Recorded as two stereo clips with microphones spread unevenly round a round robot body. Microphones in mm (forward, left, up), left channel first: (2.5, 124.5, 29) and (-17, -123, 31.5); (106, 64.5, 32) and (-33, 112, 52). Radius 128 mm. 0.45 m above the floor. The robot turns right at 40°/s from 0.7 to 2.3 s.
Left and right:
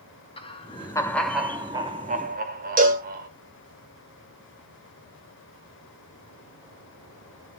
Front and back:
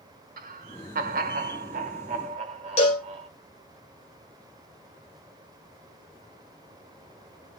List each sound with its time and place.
0.4 s laughter: 150° left, 1.3 m; by 3.3 s 145° right, 1.3 m
2.8 s a cowbell: 45° right, 1.8 m